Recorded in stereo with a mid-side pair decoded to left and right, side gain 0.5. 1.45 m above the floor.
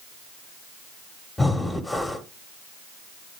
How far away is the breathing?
About 1.5 m.